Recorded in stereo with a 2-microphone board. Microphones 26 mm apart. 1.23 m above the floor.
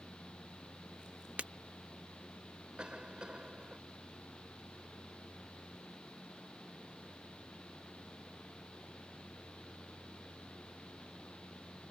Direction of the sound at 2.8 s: 40° right (ahead or behind).